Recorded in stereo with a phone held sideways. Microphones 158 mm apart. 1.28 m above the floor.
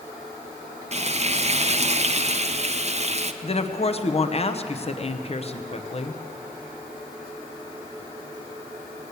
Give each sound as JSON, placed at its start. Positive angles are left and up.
{"t": 0.9, "sound": "frying", "side_deg": -45, "distance_m": 0.5}
{"t": 3.4, "sound": "a woman speaking", "side_deg": 40, "distance_m": 0.8}